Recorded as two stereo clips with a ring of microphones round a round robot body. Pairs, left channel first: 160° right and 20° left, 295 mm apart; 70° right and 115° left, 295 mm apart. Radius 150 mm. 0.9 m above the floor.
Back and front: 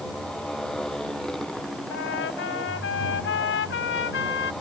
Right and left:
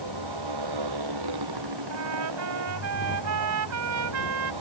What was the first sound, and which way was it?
A motorcycle, 115° left.